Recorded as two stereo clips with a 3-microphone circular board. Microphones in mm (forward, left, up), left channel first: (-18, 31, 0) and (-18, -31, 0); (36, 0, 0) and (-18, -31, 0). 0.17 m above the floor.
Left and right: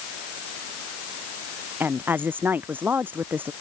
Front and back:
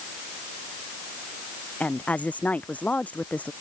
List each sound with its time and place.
1.8 s a woman speaking: 35° right